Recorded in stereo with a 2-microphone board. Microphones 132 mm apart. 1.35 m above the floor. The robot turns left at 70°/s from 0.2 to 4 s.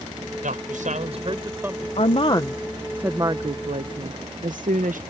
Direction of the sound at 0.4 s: 75° right.